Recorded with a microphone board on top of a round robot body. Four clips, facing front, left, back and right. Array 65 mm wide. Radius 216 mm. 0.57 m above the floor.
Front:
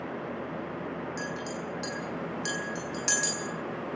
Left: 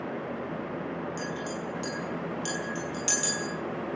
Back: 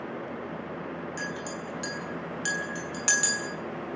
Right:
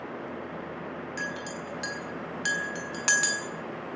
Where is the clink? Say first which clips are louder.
Left 1 dB, even; 105° right, 7 m.